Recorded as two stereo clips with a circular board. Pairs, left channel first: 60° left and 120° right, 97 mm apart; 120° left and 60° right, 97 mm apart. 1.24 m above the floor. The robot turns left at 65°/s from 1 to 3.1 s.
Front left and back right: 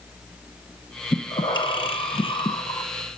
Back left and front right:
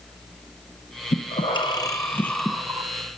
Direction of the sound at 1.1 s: 120° left.